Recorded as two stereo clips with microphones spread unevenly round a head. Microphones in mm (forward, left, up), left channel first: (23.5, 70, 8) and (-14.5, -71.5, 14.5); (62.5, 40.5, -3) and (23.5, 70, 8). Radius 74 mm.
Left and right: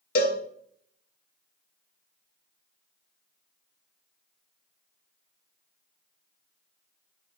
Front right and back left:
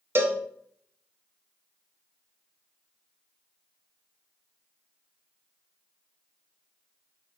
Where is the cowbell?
100° left, 1.5 m.